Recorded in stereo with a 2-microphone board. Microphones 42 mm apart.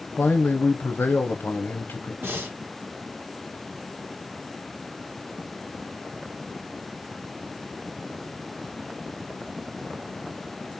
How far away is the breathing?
About 1.5 m.